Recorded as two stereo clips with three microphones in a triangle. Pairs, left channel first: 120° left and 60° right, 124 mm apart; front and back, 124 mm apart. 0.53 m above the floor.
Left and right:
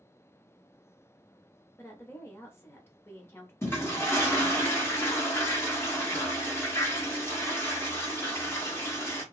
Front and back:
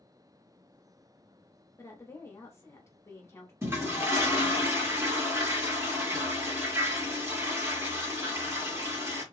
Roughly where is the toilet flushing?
Behind left.